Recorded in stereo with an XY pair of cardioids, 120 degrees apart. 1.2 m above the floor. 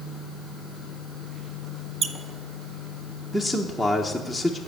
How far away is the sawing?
No sawing in this recording.